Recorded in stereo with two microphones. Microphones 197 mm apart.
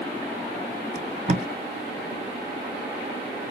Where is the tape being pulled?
40° right (ahead or behind), 0.6 m.